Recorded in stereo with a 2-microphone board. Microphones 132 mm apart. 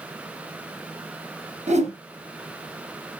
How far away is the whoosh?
About 2 m.